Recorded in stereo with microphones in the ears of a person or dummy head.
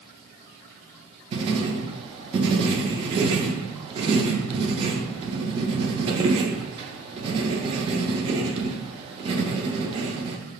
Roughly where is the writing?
Right.